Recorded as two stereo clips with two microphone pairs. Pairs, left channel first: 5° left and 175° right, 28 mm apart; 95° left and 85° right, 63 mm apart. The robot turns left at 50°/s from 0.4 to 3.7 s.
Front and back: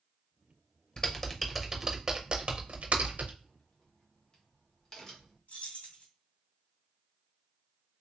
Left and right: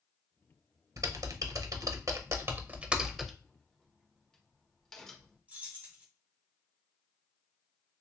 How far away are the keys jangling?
About 1.8 m.